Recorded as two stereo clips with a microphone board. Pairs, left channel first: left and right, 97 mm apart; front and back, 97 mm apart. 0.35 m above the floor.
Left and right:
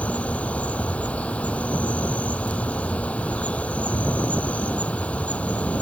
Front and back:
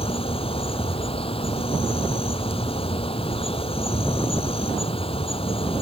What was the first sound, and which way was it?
An insect, 15° left.